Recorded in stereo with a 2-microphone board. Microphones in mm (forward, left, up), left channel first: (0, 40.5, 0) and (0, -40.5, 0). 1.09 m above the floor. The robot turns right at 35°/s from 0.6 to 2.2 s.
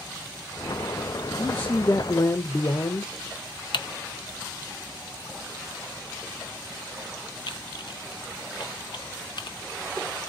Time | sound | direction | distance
1.4 | a man speaking | 20° left (ahead or behind) | 0.5 m
3.7 | typing on a keyboard | 70° left (ahead or behind) | 0.5 m